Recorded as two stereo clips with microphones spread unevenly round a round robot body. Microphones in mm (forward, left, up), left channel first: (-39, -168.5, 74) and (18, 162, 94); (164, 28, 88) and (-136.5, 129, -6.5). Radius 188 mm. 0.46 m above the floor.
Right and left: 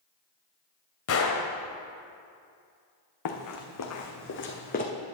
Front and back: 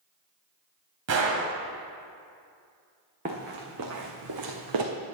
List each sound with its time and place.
1.1 s a gunshot: 145° right, 1.1 m
3.2 s running footsteps: 125° right, 1.4 m; by 4.8 s 165° right, 1.4 m